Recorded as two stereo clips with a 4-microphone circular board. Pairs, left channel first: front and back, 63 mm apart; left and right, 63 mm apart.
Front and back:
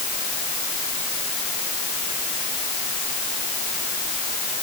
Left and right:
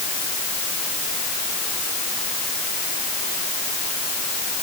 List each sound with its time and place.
Only background noise.